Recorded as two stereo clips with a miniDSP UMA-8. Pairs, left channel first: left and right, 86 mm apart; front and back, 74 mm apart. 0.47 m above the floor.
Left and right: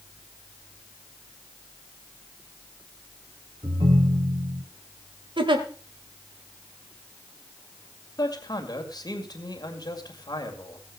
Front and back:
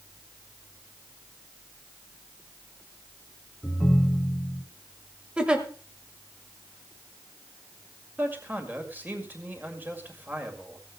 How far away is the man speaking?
About 2 m.